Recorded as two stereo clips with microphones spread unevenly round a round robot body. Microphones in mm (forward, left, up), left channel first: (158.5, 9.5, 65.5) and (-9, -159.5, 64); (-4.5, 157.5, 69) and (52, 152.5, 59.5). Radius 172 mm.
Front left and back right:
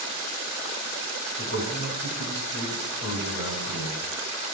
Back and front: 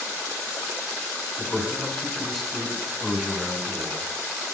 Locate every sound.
1.4 s a man speaking: 95° left, 4 m; by 4.1 s 65° left, 5 m